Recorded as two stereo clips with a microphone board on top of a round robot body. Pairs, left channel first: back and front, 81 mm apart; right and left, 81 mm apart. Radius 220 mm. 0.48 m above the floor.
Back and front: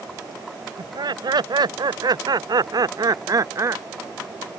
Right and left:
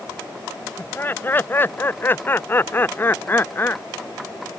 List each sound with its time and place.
0.8 s laughter: 25° right; by 3.8 s 35° right